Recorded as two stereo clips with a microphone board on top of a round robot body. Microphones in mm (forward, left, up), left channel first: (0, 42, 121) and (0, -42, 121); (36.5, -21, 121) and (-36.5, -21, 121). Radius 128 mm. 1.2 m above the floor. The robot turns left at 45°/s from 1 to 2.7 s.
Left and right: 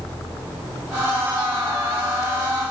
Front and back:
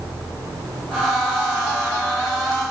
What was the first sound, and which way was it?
Only background noise.